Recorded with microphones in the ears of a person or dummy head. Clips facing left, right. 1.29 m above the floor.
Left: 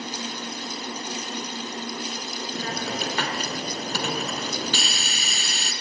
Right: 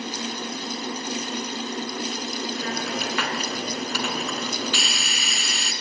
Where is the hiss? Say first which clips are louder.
Right 1 dB; 30° left (ahead or behind), 4 m.